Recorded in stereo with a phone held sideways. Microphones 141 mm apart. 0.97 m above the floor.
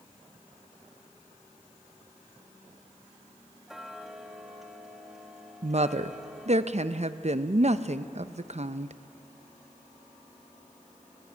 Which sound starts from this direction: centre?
Ticking, at 3.7 s.